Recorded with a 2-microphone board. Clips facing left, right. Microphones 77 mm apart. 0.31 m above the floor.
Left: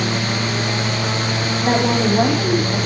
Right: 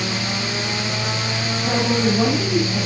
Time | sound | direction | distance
1.6 | a woman speaking | 55° left (ahead or behind) | 2.5 m